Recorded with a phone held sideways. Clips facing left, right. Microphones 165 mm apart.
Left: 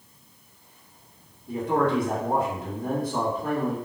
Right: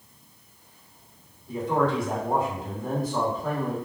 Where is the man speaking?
60° left (ahead or behind), 1.3 m.